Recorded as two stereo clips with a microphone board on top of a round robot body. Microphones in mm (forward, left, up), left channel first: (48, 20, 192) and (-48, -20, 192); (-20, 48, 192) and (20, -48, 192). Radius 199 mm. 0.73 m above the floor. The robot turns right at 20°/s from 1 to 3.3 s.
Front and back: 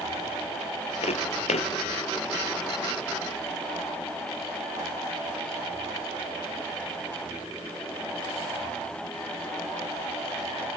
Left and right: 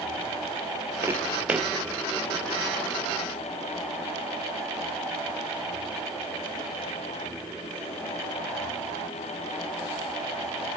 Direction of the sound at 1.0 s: Straight ahead.